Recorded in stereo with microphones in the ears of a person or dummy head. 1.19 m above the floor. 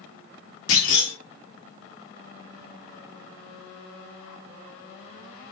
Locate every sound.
0.7 s a clunk: 80° left, 1.7 m